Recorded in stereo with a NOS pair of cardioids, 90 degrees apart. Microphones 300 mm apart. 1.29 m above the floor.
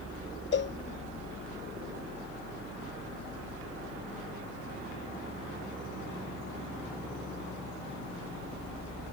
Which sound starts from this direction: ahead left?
A cowbell, at 0.5 s.